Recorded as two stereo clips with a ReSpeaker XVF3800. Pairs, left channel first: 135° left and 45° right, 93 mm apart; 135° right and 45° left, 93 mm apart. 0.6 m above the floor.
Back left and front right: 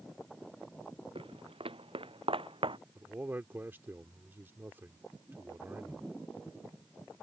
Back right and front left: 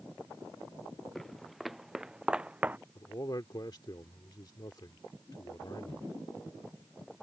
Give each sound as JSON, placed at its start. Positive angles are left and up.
{"t": 1.1, "sound": "footsteps", "azimuth_deg": -50}
{"t": 3.0, "sound": "a man speaking", "azimuth_deg": -105}